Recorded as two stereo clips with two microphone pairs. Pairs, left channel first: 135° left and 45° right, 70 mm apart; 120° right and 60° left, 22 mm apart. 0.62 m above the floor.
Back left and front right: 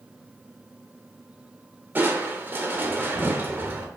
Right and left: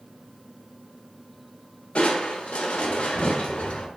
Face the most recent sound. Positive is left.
turn(degrees=-105)